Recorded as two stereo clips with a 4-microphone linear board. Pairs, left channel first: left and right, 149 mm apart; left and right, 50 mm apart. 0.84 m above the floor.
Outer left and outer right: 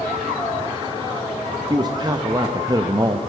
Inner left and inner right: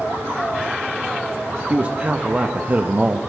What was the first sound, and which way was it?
A man speaking, 30° right (ahead or behind).